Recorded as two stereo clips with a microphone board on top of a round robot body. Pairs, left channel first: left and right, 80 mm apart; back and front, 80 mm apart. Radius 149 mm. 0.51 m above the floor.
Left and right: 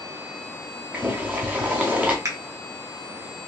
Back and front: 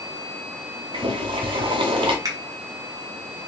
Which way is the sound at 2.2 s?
40° right.